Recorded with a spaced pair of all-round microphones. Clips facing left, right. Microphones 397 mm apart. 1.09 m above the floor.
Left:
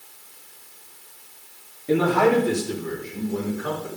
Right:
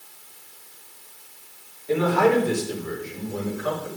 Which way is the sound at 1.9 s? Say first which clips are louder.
Left 1 dB; 80° left.